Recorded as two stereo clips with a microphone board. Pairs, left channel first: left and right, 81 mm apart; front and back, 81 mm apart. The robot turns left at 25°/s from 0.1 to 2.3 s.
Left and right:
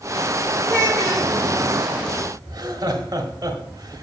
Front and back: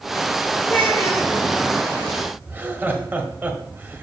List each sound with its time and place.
0.7 s a child speaking: 70° left, 2.0 m; by 1.3 s 55° left, 2.0 m
2.5 s laughter: 115° right, 1.6 m